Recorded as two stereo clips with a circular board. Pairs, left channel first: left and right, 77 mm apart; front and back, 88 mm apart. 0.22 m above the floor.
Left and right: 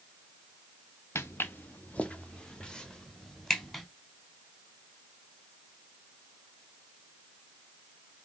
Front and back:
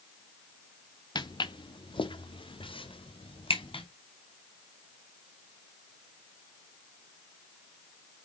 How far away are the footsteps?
About 1.1 m.